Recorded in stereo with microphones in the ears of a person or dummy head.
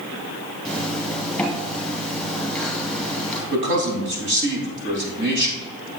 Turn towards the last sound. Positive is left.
turn(degrees=-60)  # may be behind; listen again after turning